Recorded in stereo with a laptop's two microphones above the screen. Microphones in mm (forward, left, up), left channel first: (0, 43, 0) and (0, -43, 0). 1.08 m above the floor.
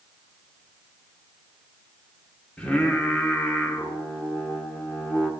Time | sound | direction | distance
2.6 | singing | 15° left (ahead or behind) | 1.1 m